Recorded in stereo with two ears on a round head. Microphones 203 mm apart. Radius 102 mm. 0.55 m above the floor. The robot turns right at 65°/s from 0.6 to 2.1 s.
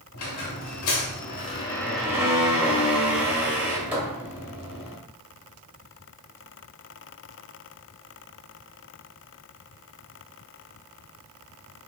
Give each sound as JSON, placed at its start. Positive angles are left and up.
{"t": 0.1, "sound": "a squeak", "azimuth_deg": 90, "distance_m": 0.9}